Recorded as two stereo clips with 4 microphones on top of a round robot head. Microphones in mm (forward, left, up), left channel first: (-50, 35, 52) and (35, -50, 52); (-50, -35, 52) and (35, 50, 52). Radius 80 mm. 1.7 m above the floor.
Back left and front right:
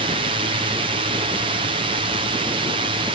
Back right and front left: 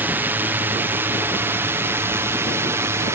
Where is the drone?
25° right; by 3.1 s 20° right.